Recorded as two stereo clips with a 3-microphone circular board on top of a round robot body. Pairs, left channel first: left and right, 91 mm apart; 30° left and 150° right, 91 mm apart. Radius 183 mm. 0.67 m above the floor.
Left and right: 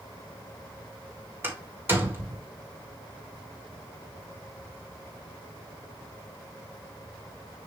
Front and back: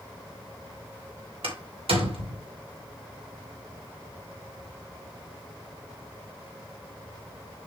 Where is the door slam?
155° right, 2.5 m.